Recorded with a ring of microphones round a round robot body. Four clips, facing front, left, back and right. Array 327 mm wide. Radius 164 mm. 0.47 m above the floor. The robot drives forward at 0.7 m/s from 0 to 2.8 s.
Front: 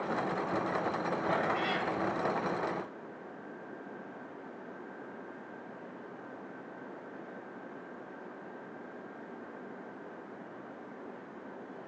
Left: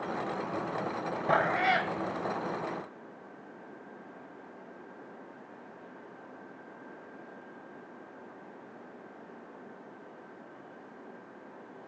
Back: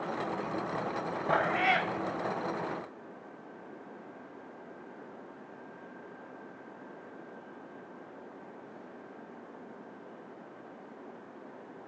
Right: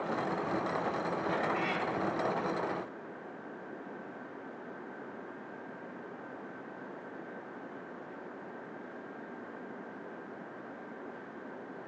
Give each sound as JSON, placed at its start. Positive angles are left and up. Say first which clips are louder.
{"t": 1.3, "sound": "a cat meowing", "louder": "left 10 dB, back 6 dB", "azimuth_deg": 110, "distance_m": 1.0}